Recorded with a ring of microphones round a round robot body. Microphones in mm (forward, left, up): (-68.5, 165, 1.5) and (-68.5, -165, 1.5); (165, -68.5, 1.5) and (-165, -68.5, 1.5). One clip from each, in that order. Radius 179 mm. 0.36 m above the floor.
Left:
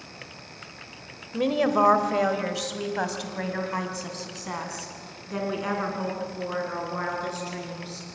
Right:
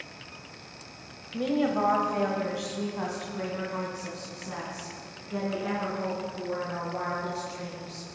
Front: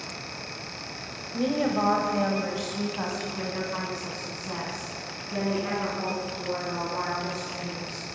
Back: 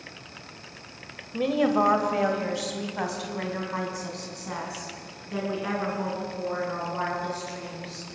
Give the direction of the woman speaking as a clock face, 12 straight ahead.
8 o'clock.